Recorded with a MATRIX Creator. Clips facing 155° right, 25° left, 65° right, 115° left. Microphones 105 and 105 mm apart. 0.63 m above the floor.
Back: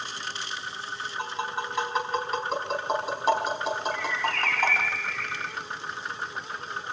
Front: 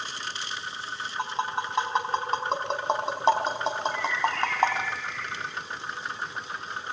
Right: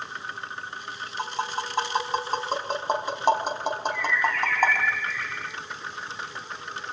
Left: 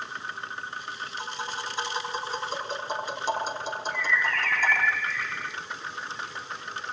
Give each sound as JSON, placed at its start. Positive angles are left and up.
{"t": 1.2, "sound": "tapping", "azimuth_deg": -40, "distance_m": 4.5}
{"t": 3.9, "sound": "a bird", "azimuth_deg": -150, "distance_m": 1.3}